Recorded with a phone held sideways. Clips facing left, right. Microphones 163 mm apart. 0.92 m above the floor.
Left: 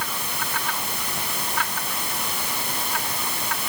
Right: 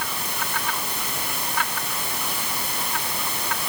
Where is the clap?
No clap in this recording.